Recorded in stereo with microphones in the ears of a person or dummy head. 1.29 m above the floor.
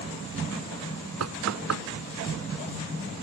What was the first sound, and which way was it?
Knocking, 85° right.